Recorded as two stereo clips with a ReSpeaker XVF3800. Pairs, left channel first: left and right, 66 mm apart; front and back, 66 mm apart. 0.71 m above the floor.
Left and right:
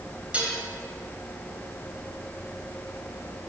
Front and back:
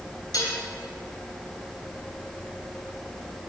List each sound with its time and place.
0.3 s dishes clattering: 20° right, 2.5 m